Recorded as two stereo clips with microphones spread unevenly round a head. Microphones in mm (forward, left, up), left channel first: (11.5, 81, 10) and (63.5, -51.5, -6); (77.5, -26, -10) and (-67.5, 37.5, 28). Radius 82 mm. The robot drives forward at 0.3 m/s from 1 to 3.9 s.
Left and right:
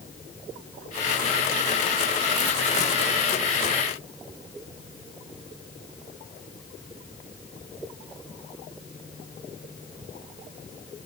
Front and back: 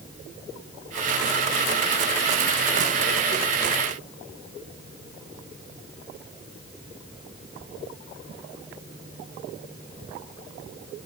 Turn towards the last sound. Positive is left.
No sound to turn to.